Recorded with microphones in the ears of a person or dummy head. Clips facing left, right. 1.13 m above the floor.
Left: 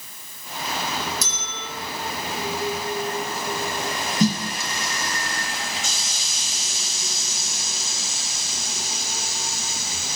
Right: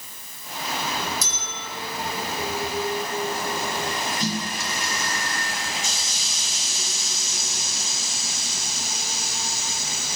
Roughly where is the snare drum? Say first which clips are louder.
Left 9 dB; left.